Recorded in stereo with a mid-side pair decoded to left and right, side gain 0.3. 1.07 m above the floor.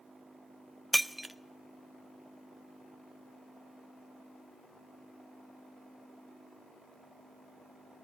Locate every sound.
0.9 s breaking glass: 5° right, 0.9 m